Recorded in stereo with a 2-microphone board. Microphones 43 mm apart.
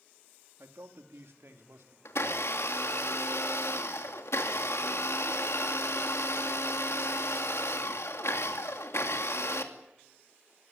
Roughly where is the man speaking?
Right.